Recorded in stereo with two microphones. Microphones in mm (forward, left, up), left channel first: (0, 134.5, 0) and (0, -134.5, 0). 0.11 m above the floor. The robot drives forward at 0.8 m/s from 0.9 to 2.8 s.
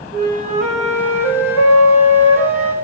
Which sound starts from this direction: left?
A flute, at 0.1 s.